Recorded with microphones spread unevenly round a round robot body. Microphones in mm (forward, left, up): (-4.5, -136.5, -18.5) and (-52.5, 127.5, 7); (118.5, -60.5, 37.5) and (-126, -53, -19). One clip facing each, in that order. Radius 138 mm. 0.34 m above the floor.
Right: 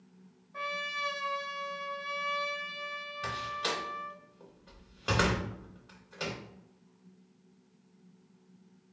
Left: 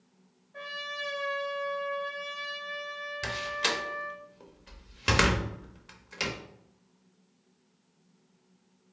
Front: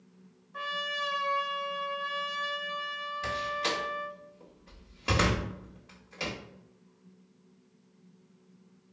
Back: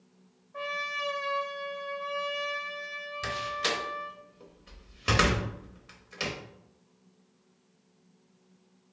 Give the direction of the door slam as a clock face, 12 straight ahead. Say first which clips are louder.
Left 3 dB, even; 8 o'clock.